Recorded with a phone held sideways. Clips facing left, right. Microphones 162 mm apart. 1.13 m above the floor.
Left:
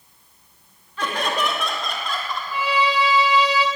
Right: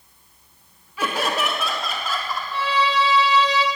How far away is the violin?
About 1.8 m.